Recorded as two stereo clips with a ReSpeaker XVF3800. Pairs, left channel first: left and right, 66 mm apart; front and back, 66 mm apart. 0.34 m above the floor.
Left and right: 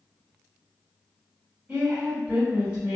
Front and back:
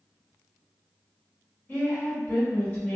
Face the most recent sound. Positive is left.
turn(degrees=-35)